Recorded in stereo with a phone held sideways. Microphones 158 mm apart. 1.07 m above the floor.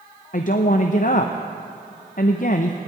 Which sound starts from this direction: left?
A woman speaking, at 0.3 s.